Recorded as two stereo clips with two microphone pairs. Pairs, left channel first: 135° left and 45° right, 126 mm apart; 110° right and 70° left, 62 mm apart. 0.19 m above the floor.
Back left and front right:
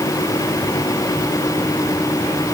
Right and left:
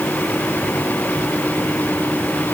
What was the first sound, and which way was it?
Only background noise.